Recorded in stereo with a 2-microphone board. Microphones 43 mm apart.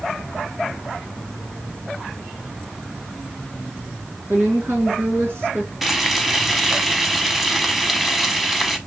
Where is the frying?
5° right (ahead or behind), 0.8 m.